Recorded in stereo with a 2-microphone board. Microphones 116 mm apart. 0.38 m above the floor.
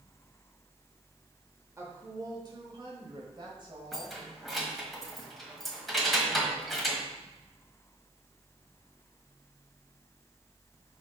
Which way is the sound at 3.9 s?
Centre (ahead or behind).